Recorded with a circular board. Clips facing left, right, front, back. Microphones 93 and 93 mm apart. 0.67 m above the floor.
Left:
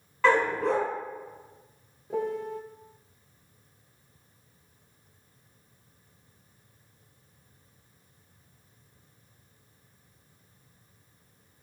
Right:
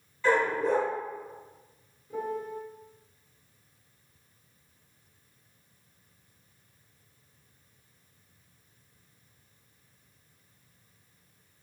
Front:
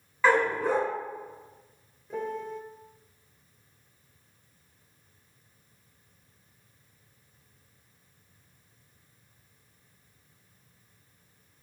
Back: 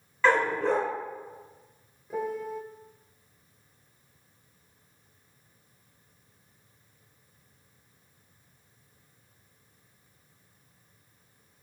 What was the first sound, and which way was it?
A dog barking, 85° left.